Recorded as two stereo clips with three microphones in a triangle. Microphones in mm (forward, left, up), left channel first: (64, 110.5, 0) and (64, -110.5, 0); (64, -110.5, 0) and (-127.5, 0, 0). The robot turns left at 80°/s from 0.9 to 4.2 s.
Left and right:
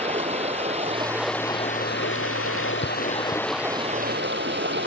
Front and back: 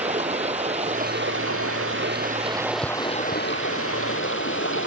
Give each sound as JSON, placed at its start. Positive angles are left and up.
{"t": 0.0, "sound": "running water", "azimuth_deg": -150}